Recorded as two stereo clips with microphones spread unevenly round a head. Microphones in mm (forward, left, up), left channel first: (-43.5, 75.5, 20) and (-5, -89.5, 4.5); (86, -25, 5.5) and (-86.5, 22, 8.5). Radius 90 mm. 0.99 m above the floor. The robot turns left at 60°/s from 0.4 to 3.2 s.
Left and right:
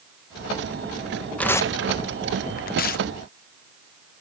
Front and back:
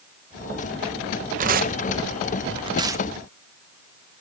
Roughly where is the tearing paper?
Behind.